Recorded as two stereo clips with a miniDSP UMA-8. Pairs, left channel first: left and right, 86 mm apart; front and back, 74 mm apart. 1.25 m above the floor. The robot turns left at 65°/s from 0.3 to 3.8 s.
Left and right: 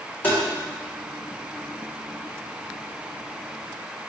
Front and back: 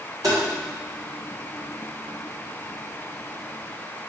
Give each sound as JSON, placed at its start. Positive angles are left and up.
{"t": 0.2, "sound": "tapping", "azimuth_deg": 160, "distance_m": 3.0}